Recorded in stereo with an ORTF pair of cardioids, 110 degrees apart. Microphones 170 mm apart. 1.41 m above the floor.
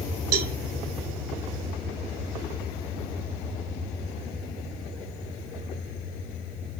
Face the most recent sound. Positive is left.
turn(degrees=-65)